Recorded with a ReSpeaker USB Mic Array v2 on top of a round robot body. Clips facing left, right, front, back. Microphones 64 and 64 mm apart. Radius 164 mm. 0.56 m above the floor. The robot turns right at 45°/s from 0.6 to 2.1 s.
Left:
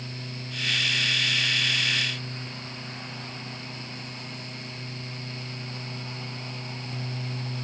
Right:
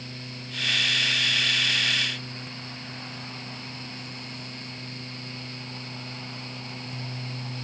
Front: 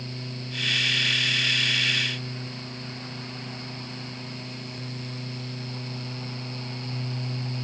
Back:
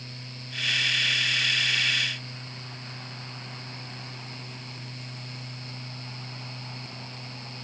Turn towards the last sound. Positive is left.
No sound to turn to.